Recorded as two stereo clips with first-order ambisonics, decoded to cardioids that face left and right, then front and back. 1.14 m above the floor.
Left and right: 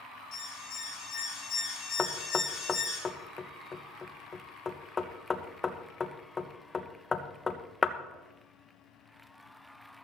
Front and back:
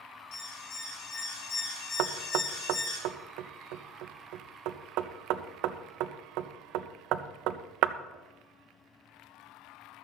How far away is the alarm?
About 3.5 m.